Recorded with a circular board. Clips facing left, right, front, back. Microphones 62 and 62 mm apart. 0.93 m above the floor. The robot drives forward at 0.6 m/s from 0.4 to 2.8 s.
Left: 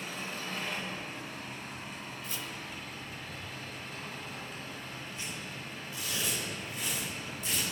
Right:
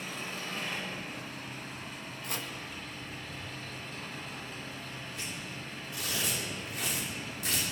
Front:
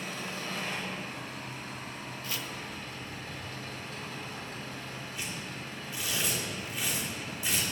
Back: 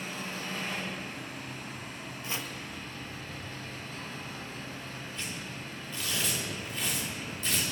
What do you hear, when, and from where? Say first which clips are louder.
0.0 s an engine running: even, even; straight ahead, 4.5 m; by 7.7 s 5° left, 3 m
2.2 s chopping: right 5 dB, back 2 dB; 110° right, 0.7 m; by 2.5 s 125° right, 0.7 m
5.1 s tearing paper: even, even; 80° right, 2.5 m